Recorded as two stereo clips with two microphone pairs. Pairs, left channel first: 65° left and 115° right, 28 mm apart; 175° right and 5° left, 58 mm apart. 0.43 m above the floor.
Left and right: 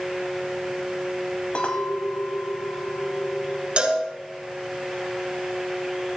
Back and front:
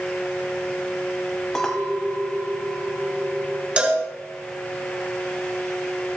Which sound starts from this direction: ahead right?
A cowbell, at 3.8 s.